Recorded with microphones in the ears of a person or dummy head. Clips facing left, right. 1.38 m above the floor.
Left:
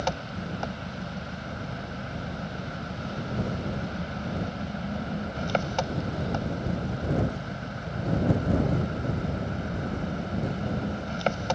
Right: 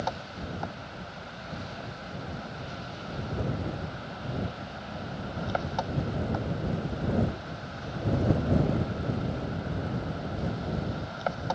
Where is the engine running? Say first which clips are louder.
Left 3 dB; 45° left (ahead or behind).